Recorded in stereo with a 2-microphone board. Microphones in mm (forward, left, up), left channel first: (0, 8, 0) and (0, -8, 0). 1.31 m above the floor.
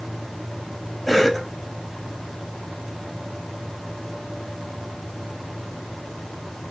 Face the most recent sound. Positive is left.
turn(degrees=0)  # may be behind; listen again after turning